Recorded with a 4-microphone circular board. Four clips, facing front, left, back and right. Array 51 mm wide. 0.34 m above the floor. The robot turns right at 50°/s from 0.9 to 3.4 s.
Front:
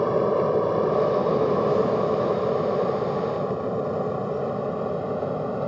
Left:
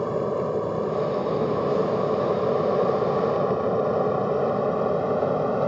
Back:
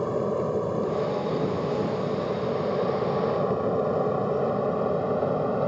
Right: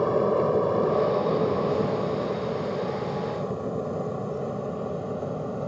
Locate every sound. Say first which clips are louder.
0.0 s an aircraft: right 3 dB, front 5 dB; 30° right; by 5.7 s 105° left